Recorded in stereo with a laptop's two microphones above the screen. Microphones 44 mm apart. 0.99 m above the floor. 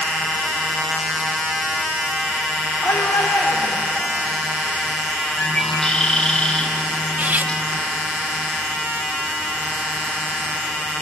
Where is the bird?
25° left (ahead or behind), 5.5 m.